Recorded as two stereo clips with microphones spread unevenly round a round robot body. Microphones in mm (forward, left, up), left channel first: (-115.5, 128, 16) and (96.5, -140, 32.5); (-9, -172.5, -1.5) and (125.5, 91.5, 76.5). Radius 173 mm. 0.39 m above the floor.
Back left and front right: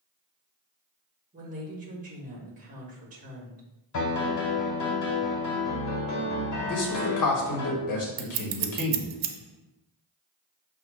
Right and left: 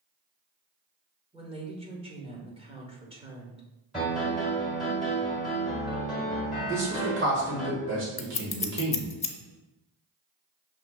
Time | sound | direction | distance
1.3 | a woman speaking | 15° right | 1.2 m
3.9 | a piano | 160° left | 1.4 m
6.7 | a man speaking | 120° left | 1.4 m
8.2 | scissors | 50° right | 0.6 m